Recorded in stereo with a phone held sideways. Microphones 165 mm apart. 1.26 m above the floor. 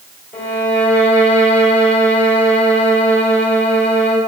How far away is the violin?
About 2.5 m.